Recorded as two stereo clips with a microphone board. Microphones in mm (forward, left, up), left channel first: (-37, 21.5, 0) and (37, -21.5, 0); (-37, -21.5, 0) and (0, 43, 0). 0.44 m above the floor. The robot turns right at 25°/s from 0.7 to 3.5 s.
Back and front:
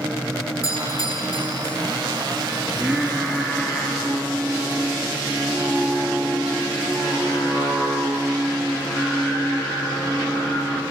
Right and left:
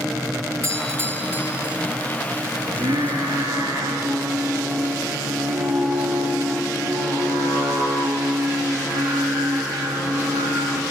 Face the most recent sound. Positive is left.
turn(degrees=75)